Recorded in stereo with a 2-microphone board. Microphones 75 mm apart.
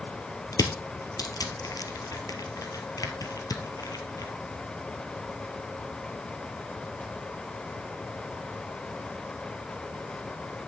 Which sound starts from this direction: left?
Crushing, at 0.5 s.